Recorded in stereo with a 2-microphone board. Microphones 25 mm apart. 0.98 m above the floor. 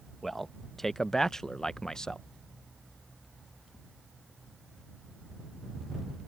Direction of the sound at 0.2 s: 10° left (ahead or behind).